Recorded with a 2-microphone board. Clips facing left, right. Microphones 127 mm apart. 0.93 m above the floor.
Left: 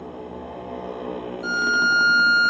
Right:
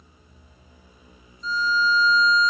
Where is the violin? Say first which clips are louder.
Right 1 dB; 5° left (ahead or behind).